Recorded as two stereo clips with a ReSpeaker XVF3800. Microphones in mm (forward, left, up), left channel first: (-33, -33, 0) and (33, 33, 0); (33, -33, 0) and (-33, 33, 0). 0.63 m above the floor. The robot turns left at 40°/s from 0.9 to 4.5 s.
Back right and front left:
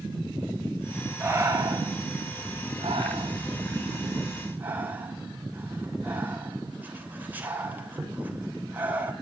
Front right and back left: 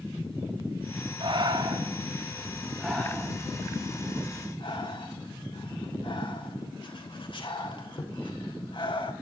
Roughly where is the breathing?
Left.